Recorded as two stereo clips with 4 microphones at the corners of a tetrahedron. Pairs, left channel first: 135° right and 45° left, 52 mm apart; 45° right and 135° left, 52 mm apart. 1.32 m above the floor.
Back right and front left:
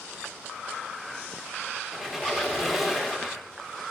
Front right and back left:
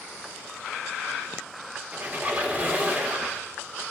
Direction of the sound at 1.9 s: 125° left.